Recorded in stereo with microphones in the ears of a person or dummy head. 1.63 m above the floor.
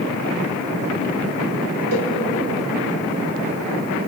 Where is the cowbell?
80° right, 5 m.